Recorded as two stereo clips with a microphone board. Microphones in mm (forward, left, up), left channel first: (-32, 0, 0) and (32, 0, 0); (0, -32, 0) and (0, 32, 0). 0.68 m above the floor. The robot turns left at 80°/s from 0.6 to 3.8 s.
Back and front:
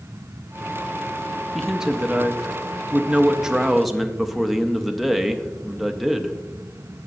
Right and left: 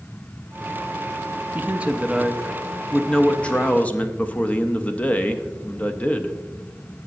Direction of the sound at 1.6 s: 90° left.